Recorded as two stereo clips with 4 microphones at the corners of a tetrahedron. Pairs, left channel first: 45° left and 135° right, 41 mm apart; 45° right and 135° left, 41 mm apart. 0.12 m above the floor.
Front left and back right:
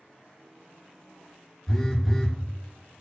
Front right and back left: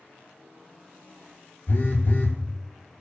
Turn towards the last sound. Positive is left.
turn(degrees=-35)